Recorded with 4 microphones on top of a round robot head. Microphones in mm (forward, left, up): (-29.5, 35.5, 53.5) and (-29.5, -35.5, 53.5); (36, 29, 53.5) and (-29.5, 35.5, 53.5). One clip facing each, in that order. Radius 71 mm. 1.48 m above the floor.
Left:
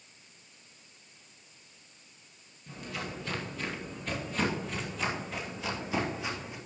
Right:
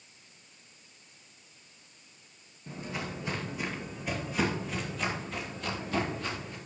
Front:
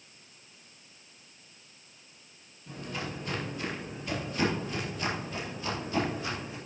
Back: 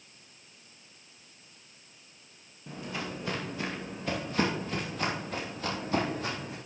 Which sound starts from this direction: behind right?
Footsteps, at 2.7 s.